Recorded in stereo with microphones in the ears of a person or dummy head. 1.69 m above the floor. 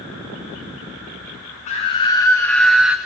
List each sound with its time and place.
1.7 s a scream: 35° left (ahead or behind), 0.9 m; by 3.0 s 5° right (ahead or behind), 1.0 m